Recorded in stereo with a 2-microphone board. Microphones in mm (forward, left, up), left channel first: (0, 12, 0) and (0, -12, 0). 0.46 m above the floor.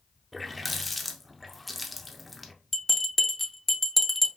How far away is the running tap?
About 0.6 m.